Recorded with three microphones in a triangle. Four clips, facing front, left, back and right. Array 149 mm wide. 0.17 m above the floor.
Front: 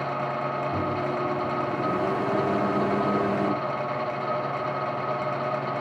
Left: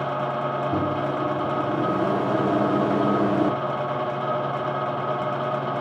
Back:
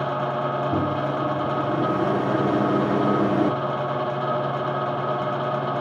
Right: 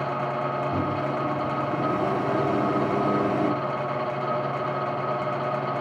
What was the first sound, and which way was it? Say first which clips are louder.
A microwave: left 2 dB, back 3 dB; 160° left.